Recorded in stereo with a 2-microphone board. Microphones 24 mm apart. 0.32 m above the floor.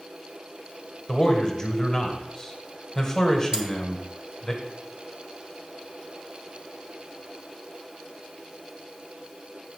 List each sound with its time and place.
1.1 s a man speaking: 25° left (ahead or behind), 1.6 m
3.5 s cutlery clinking: 25° right (ahead or behind), 1.5 m